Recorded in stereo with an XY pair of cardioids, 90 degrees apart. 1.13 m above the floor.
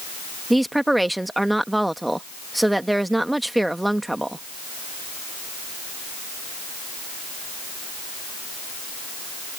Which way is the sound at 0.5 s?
10° right.